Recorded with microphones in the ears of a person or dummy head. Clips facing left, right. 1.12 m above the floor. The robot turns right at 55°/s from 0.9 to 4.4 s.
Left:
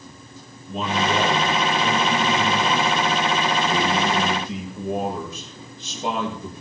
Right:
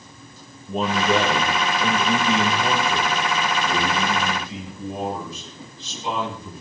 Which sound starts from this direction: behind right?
A man speaking, at 0.7 s.